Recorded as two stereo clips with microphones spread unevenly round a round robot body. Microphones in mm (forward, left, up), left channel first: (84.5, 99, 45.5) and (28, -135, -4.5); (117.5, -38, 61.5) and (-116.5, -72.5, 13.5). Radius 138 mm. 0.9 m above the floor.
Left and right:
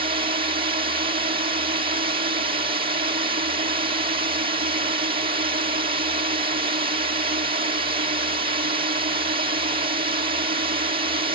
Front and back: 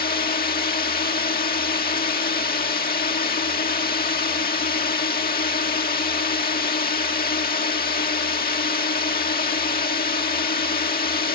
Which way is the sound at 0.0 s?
45° right.